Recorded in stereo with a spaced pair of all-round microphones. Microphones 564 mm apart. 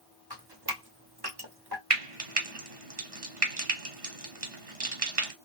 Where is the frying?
70° right (ahead or behind), 1.1 m.